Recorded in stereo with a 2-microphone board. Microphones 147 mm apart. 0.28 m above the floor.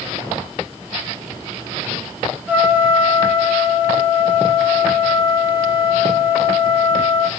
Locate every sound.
2.5 s a trumpet: 15° right (ahead or behind), 3 m